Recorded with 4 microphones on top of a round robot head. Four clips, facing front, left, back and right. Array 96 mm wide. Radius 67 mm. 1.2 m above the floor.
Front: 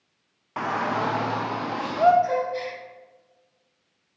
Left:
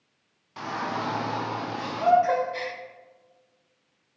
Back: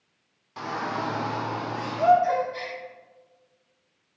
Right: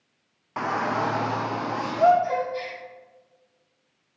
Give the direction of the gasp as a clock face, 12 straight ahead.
9 o'clock.